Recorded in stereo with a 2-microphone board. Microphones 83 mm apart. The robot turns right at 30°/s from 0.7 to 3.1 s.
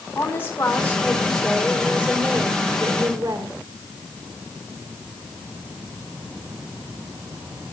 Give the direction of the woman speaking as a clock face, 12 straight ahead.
7 o'clock.